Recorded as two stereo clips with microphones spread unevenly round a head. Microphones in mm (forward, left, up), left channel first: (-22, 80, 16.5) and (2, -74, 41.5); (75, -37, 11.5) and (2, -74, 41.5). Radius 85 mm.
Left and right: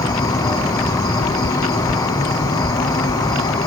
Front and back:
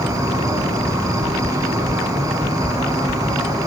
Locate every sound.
0.0 s an insect: 140° left, 1.1 m